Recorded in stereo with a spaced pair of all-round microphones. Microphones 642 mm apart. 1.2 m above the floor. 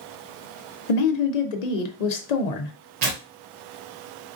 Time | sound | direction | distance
0.9 | a woman speaking | 85° left | 0.7 m
3.0 | tearing paper | 80° right | 0.8 m